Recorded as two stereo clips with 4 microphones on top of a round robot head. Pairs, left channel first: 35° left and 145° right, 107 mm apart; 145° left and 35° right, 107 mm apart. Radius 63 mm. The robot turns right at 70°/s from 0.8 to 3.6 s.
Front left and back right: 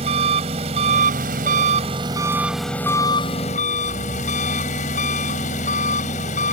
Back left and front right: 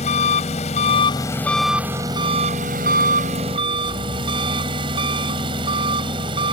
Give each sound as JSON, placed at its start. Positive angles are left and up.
{"t": 0.0, "sound": "an engine running", "azimuth_deg": 175}